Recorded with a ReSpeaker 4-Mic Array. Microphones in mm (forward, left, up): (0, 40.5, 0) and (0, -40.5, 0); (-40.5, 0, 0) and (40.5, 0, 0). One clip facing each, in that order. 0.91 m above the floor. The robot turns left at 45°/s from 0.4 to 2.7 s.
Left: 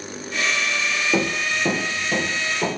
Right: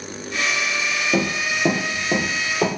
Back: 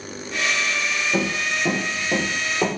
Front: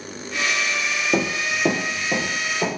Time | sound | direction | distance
1.1 | running footsteps | 5° left | 1.2 m